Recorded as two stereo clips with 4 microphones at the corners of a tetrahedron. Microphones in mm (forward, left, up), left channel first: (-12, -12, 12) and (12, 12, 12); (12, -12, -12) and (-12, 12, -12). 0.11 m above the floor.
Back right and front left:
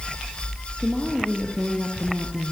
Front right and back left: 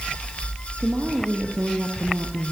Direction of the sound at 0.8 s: 120° left.